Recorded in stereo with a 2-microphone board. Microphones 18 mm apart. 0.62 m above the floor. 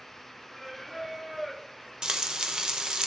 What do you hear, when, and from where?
0.5 s singing: 10° right (ahead or behind), 1.7 m
2.0 s frying: 55° right (ahead or behind), 0.6 m